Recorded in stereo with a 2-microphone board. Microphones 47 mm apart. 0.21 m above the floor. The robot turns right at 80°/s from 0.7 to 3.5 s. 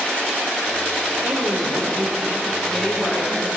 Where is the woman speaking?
100° right, 7.5 m; by 3.5 s 80° left, 7.5 m.